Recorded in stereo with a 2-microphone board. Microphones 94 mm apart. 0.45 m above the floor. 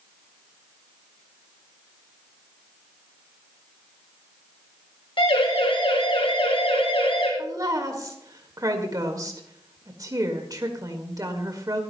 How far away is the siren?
About 5 m.